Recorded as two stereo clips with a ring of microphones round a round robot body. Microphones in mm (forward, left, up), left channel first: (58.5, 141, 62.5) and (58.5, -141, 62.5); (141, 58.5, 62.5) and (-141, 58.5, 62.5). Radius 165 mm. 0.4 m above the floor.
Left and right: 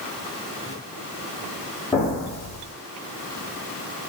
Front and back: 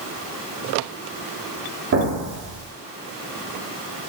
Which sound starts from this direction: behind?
An explosion, at 1.9 s.